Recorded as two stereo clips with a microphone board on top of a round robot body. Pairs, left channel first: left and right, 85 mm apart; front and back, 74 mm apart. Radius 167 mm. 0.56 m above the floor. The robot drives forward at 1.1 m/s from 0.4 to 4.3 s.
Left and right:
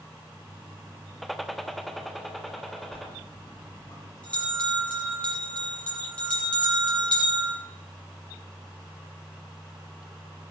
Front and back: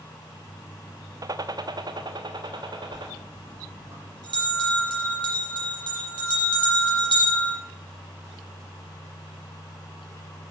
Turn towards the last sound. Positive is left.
turn(degrees=165)